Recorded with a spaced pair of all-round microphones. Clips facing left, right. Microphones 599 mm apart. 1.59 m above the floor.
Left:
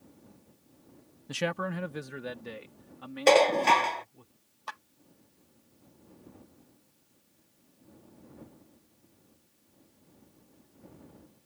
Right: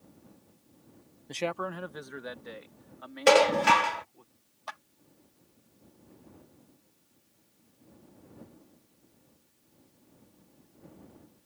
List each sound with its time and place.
1.3 s a man speaking: 35° left (ahead or behind); by 4.3 s 50° left (ahead or behind)
3.3 s dishes clattering: 40° right (ahead or behind)
4.7 s a clap: 10° right (ahead or behind)